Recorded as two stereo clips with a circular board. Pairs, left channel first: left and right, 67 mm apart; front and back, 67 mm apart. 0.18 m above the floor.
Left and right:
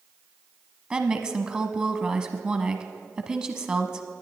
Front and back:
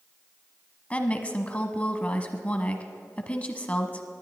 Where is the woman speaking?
35° right, 1.1 m.